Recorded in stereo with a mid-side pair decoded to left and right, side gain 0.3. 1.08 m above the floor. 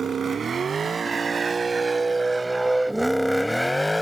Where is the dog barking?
I don't hear a dog barking.